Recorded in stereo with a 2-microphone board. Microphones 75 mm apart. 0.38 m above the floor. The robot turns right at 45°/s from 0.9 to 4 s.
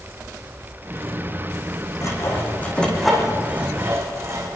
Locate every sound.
2.0 s sawing: 50° left (ahead or behind), 5 m; by 4.6 s 40° right (ahead or behind), 5 m